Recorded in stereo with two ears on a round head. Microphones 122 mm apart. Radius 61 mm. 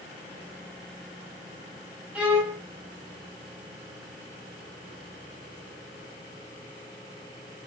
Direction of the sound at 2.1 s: 10° right (ahead or behind).